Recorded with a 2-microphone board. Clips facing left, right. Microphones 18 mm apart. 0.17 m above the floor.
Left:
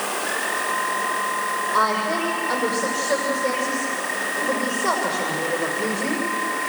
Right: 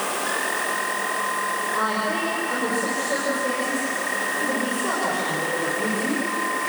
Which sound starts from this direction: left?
A woman speaking, at 1.7 s.